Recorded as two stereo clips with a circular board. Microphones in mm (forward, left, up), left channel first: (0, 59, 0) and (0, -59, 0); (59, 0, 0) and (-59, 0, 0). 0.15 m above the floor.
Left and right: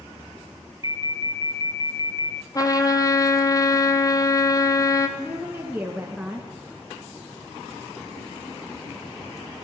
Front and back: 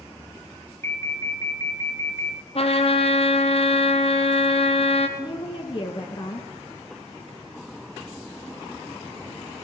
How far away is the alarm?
About 1.2 m.